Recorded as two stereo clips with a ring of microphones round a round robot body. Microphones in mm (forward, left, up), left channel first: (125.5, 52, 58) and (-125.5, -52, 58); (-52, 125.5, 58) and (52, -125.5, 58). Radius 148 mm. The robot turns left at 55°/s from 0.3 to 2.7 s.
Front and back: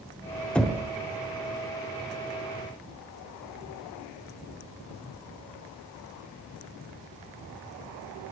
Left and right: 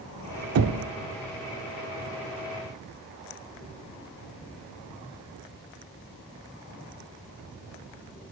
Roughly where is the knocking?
Ahead right.